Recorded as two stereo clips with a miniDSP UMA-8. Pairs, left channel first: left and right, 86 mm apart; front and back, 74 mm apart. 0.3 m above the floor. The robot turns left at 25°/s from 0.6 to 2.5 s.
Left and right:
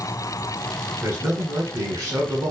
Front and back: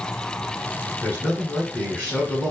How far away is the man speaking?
About 1.3 m.